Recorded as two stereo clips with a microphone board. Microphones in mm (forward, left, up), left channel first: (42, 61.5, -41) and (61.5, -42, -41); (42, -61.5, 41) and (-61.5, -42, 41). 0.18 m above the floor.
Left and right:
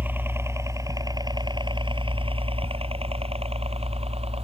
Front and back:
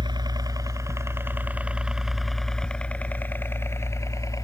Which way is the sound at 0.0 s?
150° right.